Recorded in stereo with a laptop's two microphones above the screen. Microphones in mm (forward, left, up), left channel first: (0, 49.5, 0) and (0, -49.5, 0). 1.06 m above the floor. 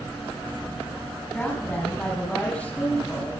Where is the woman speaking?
10° left (ahead or behind), 9 m.